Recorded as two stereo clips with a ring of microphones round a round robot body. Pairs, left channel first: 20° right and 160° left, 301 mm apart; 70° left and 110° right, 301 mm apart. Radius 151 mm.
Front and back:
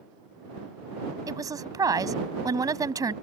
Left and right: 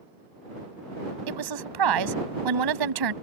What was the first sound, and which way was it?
A woman speaking, 125° right.